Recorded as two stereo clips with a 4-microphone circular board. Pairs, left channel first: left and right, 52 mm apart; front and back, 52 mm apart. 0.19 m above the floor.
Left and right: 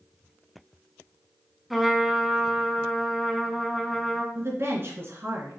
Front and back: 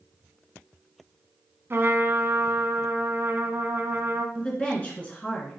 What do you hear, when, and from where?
1.7 s a trumpet: 175° left, 0.9 m
4.3 s a woman speaking: 60° right, 3 m